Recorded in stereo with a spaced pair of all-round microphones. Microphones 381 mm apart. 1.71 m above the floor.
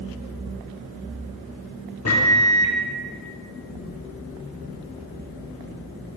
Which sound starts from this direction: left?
A microwave, at 2.0 s.